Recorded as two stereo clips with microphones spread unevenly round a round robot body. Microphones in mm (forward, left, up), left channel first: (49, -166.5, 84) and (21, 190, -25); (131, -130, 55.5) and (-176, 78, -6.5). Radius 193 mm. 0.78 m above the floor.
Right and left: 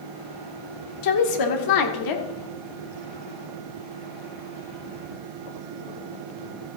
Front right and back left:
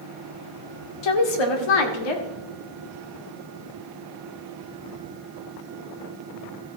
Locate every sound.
1.0 s a woman speaking: 50° right, 2.0 m